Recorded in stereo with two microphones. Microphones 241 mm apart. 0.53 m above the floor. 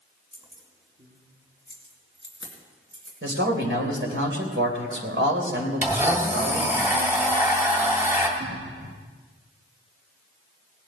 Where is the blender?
10° right (ahead or behind), 2.0 m.